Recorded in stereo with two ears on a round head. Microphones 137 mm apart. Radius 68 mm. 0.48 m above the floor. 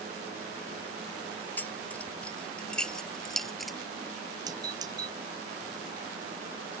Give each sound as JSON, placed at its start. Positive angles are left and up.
{"t": 1.6, "sound": "keys jangling", "side_deg": 10}
{"t": 4.5, "sound": "a doorbell", "side_deg": -25}